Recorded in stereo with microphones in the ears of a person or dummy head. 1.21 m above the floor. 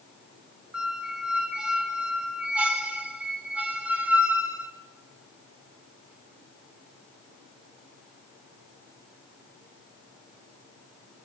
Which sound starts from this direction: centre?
A squeak, at 0.7 s.